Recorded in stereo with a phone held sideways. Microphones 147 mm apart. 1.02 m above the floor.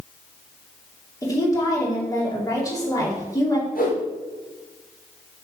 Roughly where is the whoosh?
Left.